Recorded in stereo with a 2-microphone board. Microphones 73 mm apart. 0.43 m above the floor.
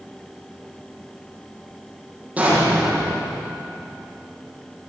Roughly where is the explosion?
Centre.